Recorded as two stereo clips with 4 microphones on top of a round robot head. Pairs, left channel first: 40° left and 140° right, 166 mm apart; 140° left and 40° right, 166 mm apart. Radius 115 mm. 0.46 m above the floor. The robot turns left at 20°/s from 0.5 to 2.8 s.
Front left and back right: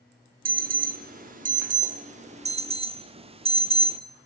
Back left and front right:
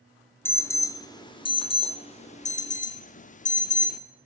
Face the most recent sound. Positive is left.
turn(degrees=170)